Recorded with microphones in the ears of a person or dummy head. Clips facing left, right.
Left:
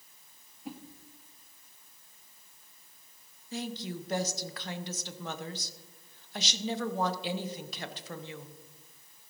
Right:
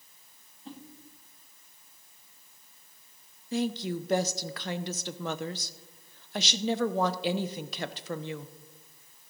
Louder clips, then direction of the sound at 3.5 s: Right 7 dB; 50° right (ahead or behind).